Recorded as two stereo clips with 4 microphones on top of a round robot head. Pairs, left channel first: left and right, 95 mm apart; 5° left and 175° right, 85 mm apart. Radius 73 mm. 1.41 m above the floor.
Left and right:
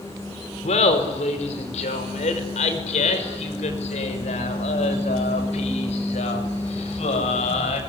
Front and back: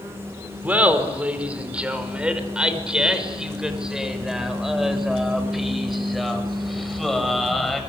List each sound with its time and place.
0.6 s laughter: 115° left, 5 m; by 7.8 s 95° left, 8 m